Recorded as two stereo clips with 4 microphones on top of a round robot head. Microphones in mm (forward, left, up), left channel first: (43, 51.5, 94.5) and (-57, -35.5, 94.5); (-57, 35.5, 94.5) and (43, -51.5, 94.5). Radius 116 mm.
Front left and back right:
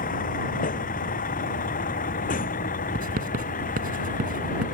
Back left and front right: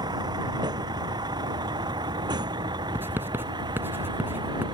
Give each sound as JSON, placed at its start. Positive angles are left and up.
{"t": 0.0, "sound": "a vehicle", "azimuth_deg": 20}
{"t": 3.0, "sound": "writing", "azimuth_deg": -115}